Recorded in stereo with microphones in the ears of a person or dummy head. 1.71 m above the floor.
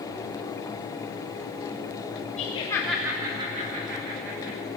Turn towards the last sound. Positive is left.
turn(degrees=-70)  # may be behind; listen again after turning